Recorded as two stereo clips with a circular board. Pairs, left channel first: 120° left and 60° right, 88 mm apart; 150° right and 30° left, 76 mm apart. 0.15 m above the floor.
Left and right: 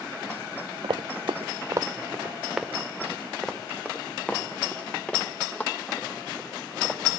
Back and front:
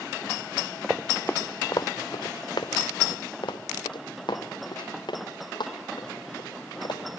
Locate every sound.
0.8 s running footsteps: 55° right, 0.7 m; by 7.0 s 170° right, 4.5 m